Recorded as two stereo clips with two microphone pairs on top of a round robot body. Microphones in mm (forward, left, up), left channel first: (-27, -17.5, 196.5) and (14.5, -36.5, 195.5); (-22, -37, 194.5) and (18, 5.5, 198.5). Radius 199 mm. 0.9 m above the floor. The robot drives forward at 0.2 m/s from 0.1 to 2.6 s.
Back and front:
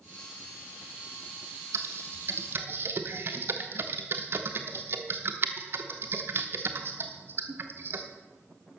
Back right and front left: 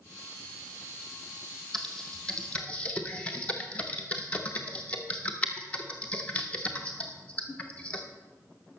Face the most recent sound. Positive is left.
turn(degrees=-65)